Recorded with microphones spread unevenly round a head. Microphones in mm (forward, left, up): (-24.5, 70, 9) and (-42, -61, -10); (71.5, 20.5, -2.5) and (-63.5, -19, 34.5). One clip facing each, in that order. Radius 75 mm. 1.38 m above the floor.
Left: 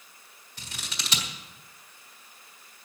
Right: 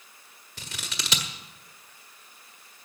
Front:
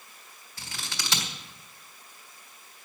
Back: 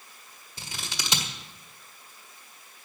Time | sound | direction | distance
0.6 | scissors | 105° right | 1.6 m